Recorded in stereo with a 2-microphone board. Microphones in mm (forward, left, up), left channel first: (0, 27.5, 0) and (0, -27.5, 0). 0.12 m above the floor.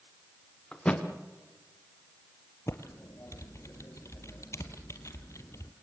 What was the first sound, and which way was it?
A thud, 20° left (ahead or behind).